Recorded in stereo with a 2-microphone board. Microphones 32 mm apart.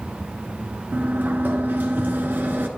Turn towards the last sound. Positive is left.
turn(degrees=-75)  # may be behind; listen again after turning